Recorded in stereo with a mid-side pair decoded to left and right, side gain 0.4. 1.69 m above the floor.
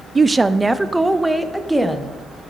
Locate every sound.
0.1 s a woman speaking: 30° right, 0.6 m; by 2.1 s straight ahead, 1.9 m